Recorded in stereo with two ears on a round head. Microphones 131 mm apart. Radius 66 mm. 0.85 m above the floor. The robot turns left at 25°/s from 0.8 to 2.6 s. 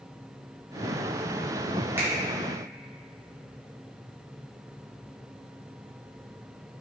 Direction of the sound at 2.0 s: 15° right (ahead or behind).